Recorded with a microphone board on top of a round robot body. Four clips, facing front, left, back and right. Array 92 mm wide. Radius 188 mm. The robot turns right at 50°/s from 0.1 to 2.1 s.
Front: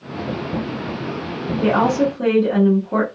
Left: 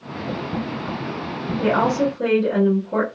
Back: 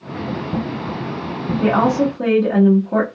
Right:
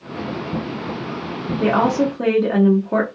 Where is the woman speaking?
125° right, 1.4 m; by 3.1 s 100° right, 1.4 m.